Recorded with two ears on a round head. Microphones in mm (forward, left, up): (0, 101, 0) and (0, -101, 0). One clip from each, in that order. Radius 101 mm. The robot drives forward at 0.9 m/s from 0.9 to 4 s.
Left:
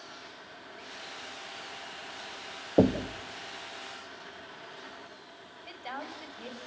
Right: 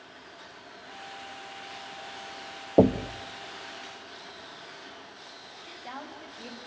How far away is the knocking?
About 0.9 m.